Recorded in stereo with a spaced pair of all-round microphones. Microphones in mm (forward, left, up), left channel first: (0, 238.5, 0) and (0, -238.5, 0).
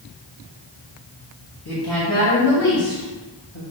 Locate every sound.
1.6 s a woman speaking: 50° left (ahead or behind), 2 m; by 3.6 s 80° left, 2 m